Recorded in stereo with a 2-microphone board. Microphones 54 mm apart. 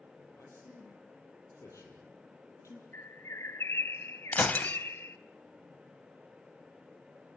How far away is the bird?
About 1.1 m.